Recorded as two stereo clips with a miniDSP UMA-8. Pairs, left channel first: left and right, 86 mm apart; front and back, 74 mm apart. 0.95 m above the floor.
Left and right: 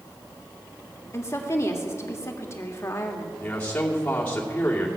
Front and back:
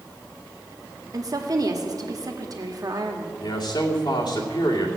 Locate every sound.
1.1 s a woman speaking: 145° left, 1.5 m
3.4 s a man speaking: 20° left, 2.5 m